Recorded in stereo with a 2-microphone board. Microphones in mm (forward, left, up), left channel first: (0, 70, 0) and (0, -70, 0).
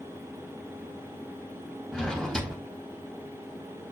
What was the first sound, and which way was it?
A drawer, 5° left (ahead or behind).